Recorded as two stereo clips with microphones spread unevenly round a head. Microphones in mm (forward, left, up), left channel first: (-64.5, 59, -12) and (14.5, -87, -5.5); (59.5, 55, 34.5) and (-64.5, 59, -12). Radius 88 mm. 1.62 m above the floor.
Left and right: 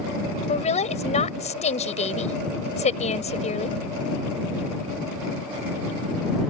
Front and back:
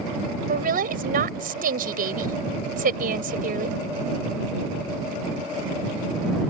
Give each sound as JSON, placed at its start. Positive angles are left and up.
{"t": 0.5, "sound": "a woman speaking", "azimuth_deg": 170}